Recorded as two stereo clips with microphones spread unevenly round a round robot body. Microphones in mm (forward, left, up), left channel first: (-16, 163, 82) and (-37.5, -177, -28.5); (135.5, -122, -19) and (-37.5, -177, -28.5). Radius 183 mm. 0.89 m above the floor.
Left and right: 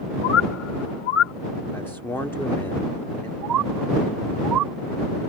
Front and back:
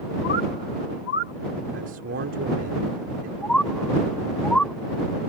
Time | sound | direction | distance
0.2 | a bird | 70° left | ?
1.7 | a man speaking | 175° left | ?
3.4 | a bird | 65° right | ?